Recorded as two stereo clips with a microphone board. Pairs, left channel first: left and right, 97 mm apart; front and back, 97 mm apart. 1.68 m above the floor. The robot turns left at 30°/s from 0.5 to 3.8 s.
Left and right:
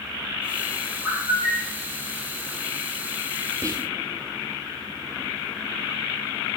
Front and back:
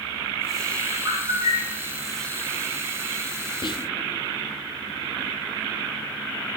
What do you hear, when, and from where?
1.0 s a bird: 155° right, 3 m; by 1.8 s 175° right, 3 m
3.6 s whispering: 30° right, 0.5 m; by 3.9 s 35° right, 0.5 m